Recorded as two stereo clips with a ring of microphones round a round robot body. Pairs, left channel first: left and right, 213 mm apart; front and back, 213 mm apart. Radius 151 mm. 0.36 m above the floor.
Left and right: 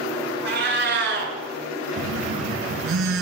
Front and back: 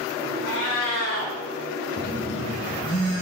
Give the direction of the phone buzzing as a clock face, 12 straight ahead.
2 o'clock.